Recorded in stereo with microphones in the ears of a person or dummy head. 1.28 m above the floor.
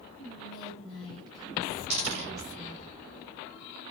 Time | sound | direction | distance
0.2 | whispering | 20° left (ahead or behind) | 1.1 m
1.9 | a dropped coin | 35° right (ahead or behind) | 1.0 m